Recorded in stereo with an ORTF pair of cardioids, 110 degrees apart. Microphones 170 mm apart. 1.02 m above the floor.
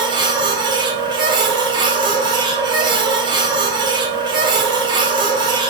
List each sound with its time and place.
0.0 s a machine running: 25° right, 1.0 m